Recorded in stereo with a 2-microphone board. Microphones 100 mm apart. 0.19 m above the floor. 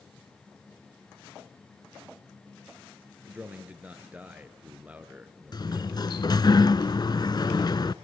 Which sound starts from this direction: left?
A sliding door, at 5.5 s.